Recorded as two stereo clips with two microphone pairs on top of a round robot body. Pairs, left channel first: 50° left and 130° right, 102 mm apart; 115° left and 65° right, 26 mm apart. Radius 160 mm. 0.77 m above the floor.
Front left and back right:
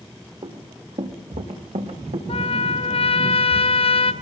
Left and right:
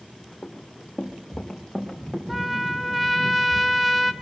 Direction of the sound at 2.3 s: 25° left.